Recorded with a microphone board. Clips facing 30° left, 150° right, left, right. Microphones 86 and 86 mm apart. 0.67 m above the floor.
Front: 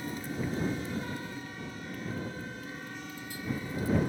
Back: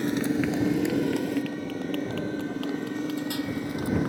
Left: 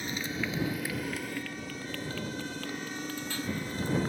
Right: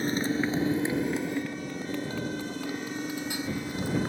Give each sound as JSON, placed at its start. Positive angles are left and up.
{"t": 0.0, "sound": "a motorcycle", "azimuth_deg": -140}